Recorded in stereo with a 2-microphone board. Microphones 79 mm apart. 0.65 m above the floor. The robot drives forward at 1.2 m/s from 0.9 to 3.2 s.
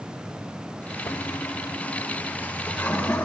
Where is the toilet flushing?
45° left (ahead or behind), 1.0 m; by 3.2 s 15° left (ahead or behind), 2.5 m.